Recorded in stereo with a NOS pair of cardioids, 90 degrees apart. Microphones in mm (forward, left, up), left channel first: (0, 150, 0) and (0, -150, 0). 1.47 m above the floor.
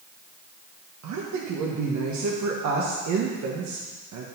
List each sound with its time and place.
1.0 s a woman speaking: 65° right, 1.5 m